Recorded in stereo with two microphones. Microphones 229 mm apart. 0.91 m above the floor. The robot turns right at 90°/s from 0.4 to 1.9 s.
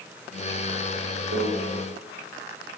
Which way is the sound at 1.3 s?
75° right (ahead or behind).